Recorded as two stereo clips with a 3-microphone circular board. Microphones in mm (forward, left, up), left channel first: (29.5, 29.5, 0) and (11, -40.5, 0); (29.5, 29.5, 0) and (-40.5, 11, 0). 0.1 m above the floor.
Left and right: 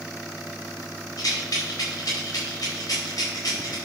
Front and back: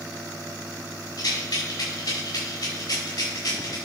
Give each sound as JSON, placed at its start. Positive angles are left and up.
{"t": 1.2, "sound": "a rattle", "azimuth_deg": 35, "distance_m": 5.5}